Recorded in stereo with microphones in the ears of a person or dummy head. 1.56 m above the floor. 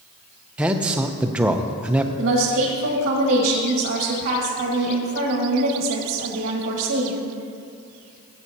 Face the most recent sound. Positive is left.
turn(degrees=-60)  # may be behind; listen again after turning